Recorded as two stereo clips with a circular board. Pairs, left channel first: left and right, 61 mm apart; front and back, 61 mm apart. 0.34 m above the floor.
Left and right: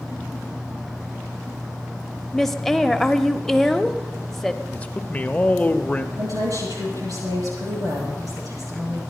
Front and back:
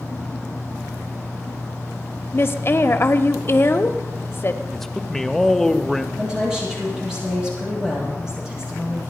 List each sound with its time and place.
2.3 s a woman speaking: 10° left, 1.0 m
4.7 s a man speaking: 80° left, 0.8 m
6.2 s a woman speaking: 100° right, 9 m